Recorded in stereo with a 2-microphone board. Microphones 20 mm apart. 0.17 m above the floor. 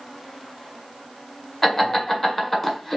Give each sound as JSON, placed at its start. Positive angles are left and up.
{"t": 1.6, "sound": "laughter", "side_deg": 15, "distance_m": 1.3}